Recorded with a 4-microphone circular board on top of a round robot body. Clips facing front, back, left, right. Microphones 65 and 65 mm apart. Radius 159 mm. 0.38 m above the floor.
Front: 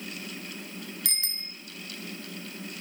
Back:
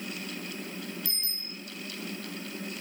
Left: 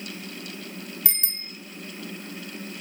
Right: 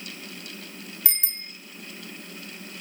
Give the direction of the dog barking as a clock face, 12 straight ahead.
No dog barking in this recording.